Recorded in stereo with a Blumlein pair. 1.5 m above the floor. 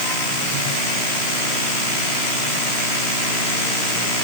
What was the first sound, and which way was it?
Only background noise.